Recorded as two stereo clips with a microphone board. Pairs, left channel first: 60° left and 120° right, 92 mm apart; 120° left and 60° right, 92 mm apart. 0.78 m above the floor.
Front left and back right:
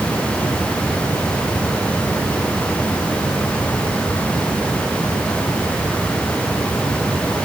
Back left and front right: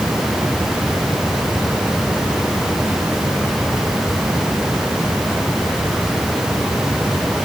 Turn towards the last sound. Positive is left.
No sound to turn to.